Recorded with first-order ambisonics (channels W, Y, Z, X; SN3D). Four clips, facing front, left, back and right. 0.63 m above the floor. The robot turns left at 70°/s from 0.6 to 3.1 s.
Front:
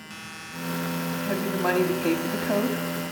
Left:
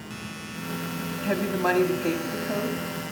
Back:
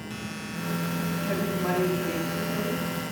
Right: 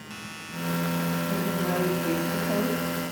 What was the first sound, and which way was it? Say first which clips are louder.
A woman speaking: left 3 dB, front 4 dB; 90° left.